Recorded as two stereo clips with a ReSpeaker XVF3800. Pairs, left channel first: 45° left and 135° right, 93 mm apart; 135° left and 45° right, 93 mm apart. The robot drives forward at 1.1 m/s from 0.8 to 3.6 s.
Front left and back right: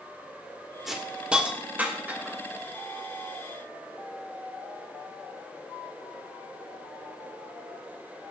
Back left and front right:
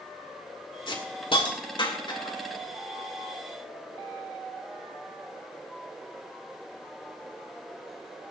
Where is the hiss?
140° left, 2 m; by 2.4 s 160° left, 3.5 m.